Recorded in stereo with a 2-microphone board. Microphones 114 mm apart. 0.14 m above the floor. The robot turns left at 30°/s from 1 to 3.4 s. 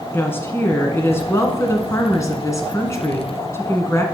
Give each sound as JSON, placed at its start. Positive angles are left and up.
{"t": 0.1, "sound": "a woman speaking", "side_deg": 20, "distance_m": 1.3}